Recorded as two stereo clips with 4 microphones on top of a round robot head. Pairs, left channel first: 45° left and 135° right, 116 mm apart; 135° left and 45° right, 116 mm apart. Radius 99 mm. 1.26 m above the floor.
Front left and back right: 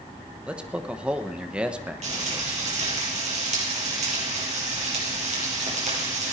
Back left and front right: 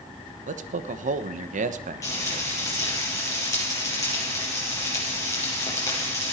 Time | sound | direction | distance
0.5 | a man speaking | 55° right | 1.1 m
2.0 | frying | 165° right | 8 m